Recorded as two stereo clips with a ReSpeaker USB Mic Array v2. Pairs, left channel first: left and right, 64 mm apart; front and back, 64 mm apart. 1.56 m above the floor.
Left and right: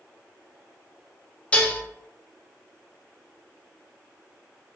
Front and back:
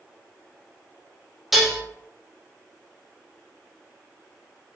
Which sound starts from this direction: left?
Dishes clattering, at 1.5 s.